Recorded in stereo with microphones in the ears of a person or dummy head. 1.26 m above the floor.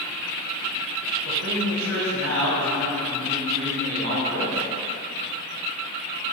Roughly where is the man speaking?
Right.